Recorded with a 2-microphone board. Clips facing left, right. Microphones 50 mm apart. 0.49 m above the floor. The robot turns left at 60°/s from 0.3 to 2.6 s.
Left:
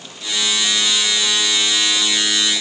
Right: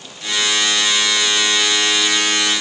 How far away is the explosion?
No explosion in this recording.